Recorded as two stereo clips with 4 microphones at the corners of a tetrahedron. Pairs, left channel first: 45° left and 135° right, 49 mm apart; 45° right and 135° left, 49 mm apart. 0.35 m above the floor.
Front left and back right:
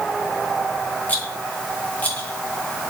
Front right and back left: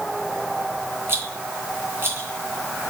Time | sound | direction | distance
1.1 | a rattle | 100° left | 3.5 m